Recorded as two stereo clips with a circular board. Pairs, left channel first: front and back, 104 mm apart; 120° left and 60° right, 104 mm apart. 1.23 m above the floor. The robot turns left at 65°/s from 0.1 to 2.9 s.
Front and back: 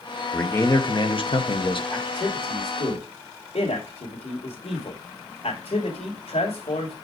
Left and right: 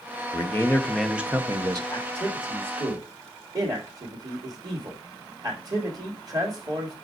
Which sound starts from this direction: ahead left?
A man speaking, at 1.9 s.